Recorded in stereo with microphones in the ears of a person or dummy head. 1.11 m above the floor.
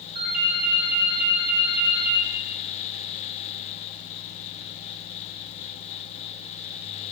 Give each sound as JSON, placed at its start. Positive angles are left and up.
{"t": 0.1, "sound": "a ringtone", "side_deg": -50, "distance_m": 2.0}